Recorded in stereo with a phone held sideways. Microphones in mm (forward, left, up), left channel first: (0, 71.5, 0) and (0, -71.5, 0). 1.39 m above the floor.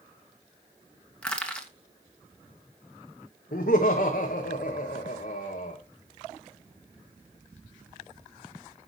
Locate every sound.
1.2 s crushing: 5° left (ahead or behind), 1.9 m
3.5 s laughter: 80° left, 1.4 m